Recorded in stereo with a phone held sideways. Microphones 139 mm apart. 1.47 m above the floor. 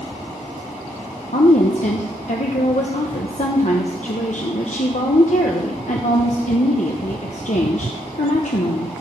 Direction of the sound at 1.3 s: 60° left (ahead or behind).